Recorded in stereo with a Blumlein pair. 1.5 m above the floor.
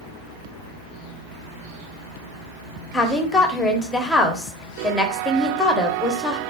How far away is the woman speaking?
About 0.9 m.